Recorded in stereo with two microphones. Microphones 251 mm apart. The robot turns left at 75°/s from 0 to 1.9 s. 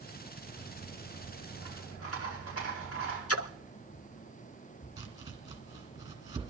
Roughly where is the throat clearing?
I don't hear throat clearing.